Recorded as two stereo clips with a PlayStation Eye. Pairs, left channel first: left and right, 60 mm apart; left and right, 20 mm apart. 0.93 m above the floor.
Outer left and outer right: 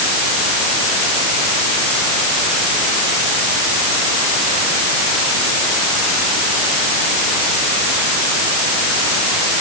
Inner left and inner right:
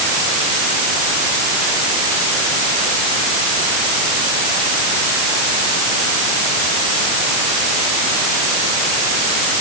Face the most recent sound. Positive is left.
No sound to turn to.